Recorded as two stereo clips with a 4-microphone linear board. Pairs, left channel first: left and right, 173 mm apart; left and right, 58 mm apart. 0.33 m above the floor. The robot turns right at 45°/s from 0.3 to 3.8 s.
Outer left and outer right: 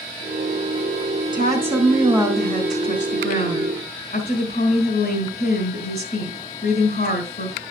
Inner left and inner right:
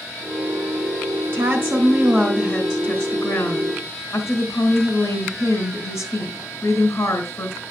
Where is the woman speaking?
30° right, 3 m; by 7.6 s 80° left, 3 m.